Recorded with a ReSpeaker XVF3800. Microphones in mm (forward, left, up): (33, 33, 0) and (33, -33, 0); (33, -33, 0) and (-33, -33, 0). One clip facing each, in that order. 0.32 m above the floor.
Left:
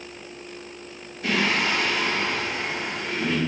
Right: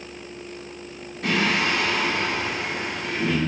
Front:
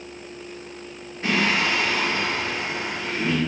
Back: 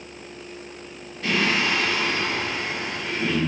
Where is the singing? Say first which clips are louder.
Right 1 dB, front 1 dB; 65° right, 1.6 m.